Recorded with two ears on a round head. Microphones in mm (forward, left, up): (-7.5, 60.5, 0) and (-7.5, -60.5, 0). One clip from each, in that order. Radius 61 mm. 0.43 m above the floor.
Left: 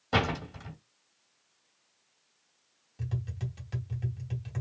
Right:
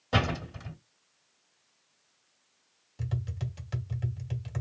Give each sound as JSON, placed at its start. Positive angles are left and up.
{"t": 0.1, "sound": "a door slam", "side_deg": 5, "distance_m": 2.0}
{"t": 3.0, "sound": "tapping", "side_deg": -20, "distance_m": 1.3}